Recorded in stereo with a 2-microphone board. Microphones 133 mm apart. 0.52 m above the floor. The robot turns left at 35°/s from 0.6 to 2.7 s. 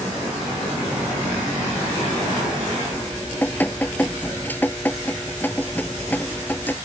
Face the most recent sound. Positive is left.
turn(degrees=15)  # may be behind; listen again after turning